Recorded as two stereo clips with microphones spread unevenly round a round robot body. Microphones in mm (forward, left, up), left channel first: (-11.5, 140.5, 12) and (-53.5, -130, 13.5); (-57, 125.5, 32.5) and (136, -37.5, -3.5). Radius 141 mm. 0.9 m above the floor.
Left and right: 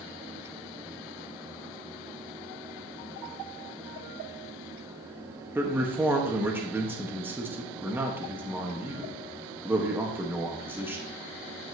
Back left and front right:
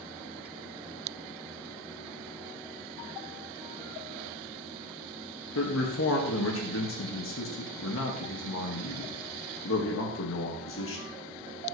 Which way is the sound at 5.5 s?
Straight behind.